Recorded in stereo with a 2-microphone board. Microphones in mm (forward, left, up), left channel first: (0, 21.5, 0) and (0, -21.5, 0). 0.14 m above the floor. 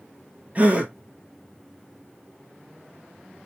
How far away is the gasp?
About 0.9 m.